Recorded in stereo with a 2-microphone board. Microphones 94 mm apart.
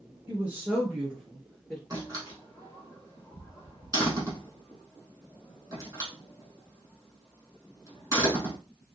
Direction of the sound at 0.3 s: 20° right (ahead or behind).